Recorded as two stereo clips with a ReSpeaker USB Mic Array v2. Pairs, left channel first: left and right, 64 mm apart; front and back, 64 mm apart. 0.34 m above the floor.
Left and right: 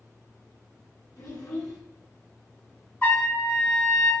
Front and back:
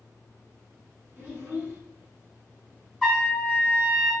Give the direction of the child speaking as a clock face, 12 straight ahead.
8 o'clock.